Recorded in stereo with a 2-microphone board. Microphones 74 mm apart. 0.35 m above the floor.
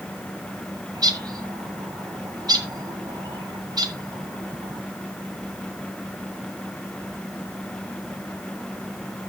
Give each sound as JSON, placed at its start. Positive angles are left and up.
{"t": 0.9, "sound": "a bird", "side_deg": -60, "distance_m": 1.8}